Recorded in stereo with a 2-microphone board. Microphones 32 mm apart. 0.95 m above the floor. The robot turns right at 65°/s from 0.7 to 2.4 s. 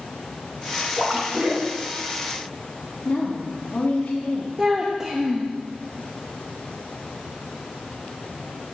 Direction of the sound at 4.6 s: 20° right (ahead or behind).